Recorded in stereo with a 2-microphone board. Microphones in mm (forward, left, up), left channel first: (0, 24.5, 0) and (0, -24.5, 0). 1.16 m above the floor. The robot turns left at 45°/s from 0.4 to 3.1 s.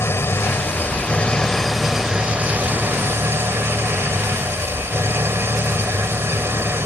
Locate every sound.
0.0 s an engine running: 60° left; by 6.8 s 60° right